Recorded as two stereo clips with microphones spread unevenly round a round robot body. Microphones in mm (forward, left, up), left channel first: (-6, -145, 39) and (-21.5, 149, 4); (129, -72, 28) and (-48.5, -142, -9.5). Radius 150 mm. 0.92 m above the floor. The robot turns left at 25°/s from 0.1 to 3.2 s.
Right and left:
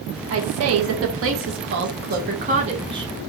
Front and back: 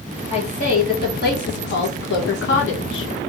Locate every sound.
0.3 s a woman speaking: 95° left, 0.9 m; by 3.3 s 20° left, 0.9 m